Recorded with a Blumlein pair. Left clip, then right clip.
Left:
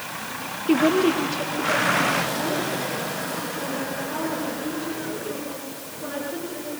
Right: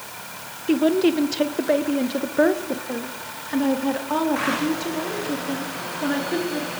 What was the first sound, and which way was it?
A woman speaking, straight ahead.